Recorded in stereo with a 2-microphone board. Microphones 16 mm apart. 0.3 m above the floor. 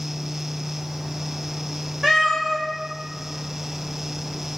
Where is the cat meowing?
75° right (ahead or behind), 1.9 m.